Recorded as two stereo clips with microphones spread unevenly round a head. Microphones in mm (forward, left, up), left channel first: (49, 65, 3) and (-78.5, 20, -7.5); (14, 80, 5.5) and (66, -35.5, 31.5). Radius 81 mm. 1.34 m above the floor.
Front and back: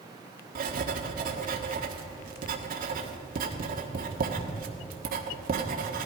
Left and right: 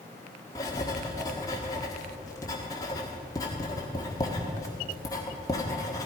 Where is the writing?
170° right, 1.5 m.